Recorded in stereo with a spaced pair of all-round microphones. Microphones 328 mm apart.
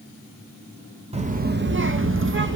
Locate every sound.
1.1 s a child speaking: 20° right (ahead or behind), 0.6 m; by 2.6 s 40° right (ahead or behind), 0.9 m